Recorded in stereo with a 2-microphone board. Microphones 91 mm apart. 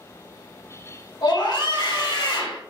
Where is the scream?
55° left (ahead or behind), 1.1 m.